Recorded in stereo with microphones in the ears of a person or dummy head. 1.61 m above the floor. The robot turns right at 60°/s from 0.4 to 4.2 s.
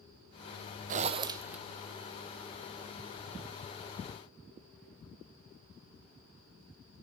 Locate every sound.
0.9 s a zipper: 50° right, 0.8 m; by 1.6 s 10° right, 0.8 m